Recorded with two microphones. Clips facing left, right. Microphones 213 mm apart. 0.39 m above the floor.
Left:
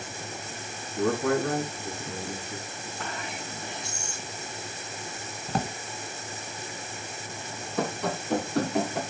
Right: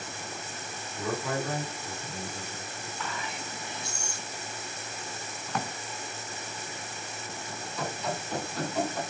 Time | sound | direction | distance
1.0 | a man speaking | 65° left (ahead or behind) | 4 m
3.0 | whispering | 45° left (ahead or behind) | 4 m
5.5 | a drawer | 35° left (ahead or behind) | 0.7 m
7.8 | running footsteps | 55° left (ahead or behind) | 4.5 m